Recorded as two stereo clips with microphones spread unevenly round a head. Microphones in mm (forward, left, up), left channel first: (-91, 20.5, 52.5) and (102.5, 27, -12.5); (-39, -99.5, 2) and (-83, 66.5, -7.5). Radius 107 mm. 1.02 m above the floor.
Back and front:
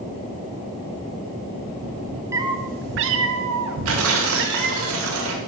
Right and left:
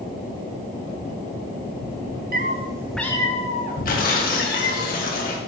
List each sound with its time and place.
2.3 s a cat meowing: 95° left, 0.6 m; by 4.8 s 45° right, 1.6 m
3.9 s tearing paper: 30° right, 1.2 m